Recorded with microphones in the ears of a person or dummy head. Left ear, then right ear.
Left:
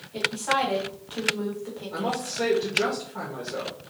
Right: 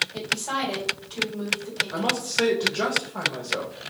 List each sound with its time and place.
0.1 s a woman speaking: 25° left (ahead or behind), 1.6 m
1.9 s a man speaking: 30° right (ahead or behind), 1.0 m